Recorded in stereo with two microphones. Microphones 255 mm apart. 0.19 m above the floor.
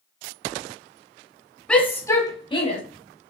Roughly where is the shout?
Centre.